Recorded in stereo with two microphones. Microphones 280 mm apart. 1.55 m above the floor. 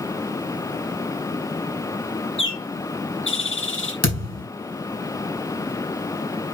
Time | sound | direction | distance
2.4 | a bird | 45° left (ahead or behind) | 1.4 m
4.0 | a thud | 60° left (ahead or behind) | 4.5 m